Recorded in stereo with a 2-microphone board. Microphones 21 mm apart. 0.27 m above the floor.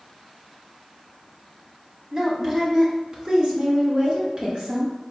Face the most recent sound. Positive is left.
turn(degrees=-35)  # may be behind; listen again after turning